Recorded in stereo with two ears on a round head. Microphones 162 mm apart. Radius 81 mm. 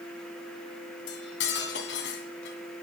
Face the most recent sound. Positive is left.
turn(degrees=65)  # may be behind; listen again after turning